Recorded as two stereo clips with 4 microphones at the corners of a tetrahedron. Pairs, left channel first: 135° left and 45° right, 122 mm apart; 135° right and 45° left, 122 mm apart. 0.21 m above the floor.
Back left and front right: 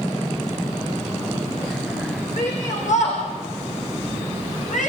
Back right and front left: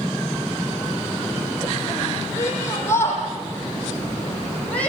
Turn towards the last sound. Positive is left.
turn(degrees=145)